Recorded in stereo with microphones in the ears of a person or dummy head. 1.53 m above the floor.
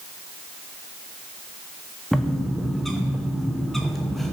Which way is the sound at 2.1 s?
Centre (ahead or behind).